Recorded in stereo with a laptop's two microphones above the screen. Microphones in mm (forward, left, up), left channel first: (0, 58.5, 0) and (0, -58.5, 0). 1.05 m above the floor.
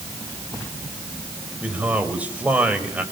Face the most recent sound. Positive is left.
turn(degrees=-10)  # may be behind; listen again after turning